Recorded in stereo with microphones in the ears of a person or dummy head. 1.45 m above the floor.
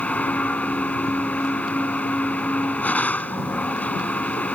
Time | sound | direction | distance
0.0 | a machine running | 10° left (ahead or behind) | ?